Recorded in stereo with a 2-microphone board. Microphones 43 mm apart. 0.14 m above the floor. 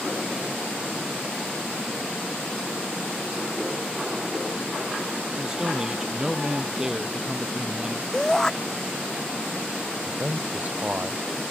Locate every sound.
5.4 s a man speaking: 15° right (ahead or behind)
8.1 s a shout: 15° left (ahead or behind)
10.1 s a man speaking: 35° right (ahead or behind)